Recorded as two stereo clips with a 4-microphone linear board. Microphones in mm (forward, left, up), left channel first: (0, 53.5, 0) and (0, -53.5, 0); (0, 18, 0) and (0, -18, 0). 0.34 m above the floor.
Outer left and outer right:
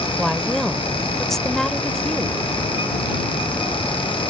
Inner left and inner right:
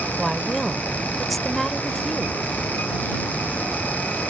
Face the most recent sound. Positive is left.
turn(degrees=5)  # may be behind; listen again after turning